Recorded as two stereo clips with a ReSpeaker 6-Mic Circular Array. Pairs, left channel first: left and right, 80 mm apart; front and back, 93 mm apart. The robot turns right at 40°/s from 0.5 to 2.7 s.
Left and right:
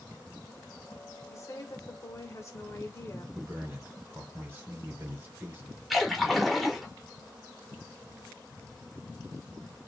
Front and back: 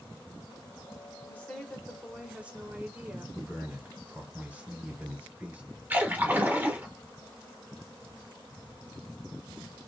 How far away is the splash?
About 0.8 m.